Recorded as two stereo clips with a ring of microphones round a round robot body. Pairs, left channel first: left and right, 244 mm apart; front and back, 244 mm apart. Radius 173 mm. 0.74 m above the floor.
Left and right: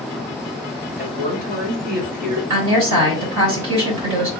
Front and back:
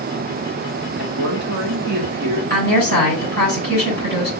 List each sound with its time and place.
1.0 s a woman speaking: 155° right, 1.9 m
2.5 s a woman speaking: 110° right, 3 m